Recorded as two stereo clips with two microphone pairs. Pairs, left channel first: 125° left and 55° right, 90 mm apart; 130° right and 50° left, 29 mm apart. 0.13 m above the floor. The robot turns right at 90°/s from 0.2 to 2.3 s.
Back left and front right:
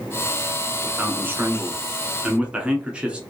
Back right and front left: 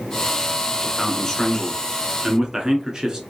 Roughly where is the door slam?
No door slam in this recording.